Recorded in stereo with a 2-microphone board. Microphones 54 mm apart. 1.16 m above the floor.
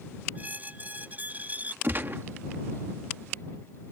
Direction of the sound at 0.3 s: 30° right (ahead or behind).